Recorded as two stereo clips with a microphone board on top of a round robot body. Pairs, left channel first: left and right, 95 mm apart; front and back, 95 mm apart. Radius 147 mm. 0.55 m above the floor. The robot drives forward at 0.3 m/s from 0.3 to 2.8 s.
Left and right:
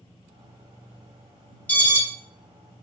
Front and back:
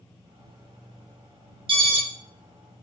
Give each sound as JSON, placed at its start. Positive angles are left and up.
{"t": 1.7, "sound": "an alarm", "azimuth_deg": 165, "distance_m": 1.2}